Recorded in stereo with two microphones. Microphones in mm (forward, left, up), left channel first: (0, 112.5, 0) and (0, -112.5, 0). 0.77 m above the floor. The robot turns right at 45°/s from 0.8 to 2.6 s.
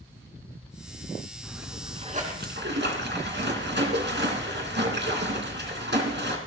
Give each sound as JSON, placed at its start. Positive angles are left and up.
{"t": 1.4, "sound": "a splash", "azimuth_deg": 180, "distance_m": 3.0}